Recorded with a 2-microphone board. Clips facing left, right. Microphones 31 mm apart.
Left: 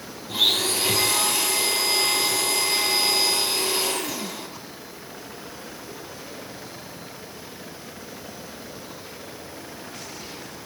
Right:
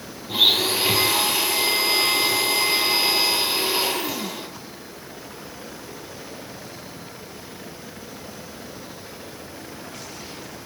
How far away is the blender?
About 3 m.